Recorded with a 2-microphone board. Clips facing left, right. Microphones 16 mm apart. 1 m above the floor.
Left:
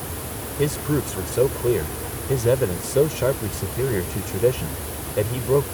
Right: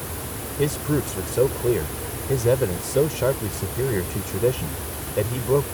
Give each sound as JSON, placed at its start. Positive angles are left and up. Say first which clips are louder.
{"t": 0.6, "sound": "a man speaking", "louder": "even", "side_deg": 5}